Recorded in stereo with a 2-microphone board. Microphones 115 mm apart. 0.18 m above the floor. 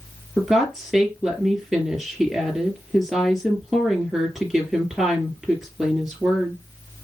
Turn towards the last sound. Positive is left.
turn(degrees=-5)  # may be behind; listen again after turning